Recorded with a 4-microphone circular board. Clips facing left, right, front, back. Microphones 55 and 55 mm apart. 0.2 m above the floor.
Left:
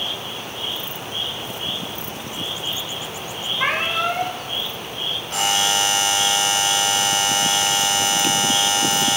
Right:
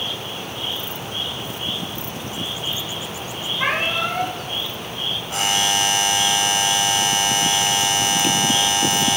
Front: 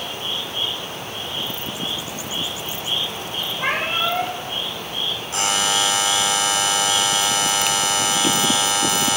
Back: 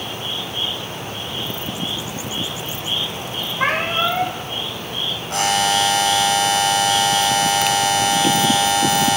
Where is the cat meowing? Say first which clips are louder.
Even, back 3 dB; 170° left, 6 m.